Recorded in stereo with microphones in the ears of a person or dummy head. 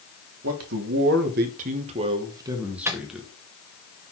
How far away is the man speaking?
About 1.5 m.